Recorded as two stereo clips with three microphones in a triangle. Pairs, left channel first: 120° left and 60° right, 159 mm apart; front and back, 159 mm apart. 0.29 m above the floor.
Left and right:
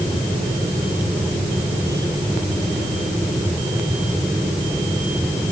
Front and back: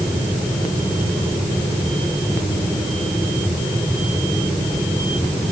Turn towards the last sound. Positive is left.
No sound to turn to.